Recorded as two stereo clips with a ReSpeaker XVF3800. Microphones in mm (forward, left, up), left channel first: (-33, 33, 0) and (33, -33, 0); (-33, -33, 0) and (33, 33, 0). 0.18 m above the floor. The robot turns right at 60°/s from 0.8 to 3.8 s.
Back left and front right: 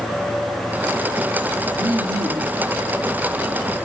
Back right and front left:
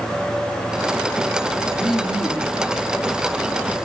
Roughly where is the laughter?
Ahead right.